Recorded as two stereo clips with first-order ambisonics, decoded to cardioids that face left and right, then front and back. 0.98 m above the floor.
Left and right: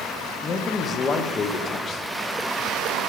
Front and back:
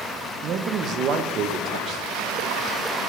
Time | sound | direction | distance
0.4 | a man speaking | 145° left | 0.7 m